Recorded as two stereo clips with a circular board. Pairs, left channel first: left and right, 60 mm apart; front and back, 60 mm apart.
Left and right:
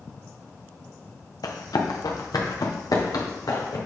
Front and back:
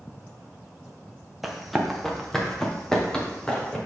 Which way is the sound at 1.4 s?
95° left.